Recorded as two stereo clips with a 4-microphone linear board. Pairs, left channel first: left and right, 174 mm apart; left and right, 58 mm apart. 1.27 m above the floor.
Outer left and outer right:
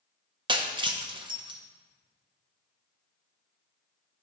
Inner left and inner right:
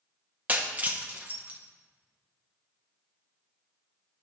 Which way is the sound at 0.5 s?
25° right (ahead or behind).